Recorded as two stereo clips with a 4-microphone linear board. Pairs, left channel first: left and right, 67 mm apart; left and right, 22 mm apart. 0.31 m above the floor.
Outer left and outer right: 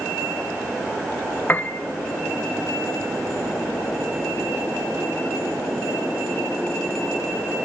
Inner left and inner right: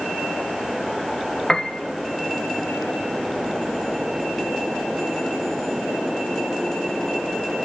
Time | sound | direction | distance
1.5 | a piano | 30° left (ahead or behind) | 0.7 m